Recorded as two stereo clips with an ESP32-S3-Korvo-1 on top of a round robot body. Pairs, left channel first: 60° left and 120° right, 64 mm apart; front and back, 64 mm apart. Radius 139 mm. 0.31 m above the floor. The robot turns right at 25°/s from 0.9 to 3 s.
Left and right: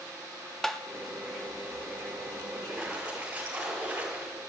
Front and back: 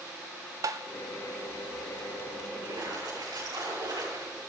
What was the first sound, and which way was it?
Tapping, 145° left.